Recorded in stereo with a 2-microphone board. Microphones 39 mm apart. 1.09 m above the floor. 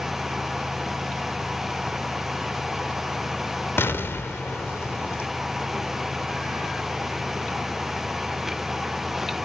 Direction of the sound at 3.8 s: 80° left.